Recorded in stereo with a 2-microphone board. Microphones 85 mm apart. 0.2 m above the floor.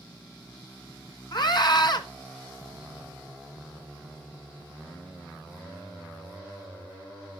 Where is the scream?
55° left (ahead or behind), 1.6 m.